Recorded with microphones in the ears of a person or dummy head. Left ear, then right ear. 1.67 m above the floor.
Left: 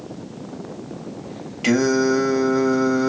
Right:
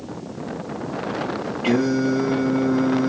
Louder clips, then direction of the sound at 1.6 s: Left 3 dB; 65° left (ahead or behind).